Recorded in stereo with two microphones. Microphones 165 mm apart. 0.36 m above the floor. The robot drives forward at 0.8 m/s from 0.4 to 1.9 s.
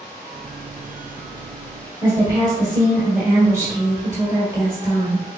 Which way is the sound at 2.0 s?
20° right (ahead or behind).